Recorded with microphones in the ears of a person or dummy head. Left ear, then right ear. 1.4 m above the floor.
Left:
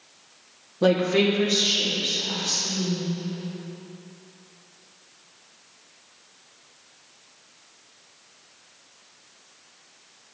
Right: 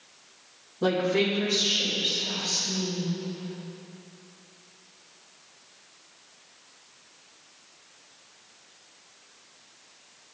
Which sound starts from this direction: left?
A woman speaking, at 0.8 s.